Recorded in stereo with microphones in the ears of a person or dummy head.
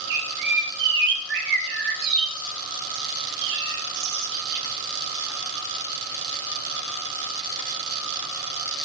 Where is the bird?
65° right (ahead or behind), 4.5 m.